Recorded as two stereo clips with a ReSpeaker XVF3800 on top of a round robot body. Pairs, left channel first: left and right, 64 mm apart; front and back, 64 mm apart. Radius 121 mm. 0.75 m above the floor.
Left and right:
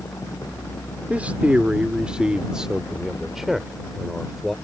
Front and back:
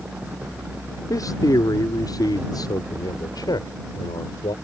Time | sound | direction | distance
1.1 | a man speaking | 25° right | ?